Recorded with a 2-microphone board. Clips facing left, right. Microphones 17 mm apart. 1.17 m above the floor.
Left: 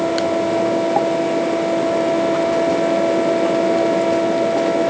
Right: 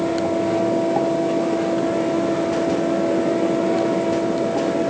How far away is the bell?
No bell in this recording.